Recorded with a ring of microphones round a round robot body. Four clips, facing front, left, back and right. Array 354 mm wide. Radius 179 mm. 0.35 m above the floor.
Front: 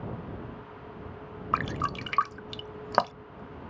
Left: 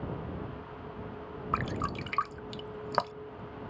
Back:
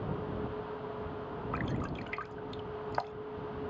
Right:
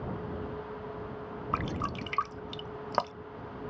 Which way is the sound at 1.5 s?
5° right.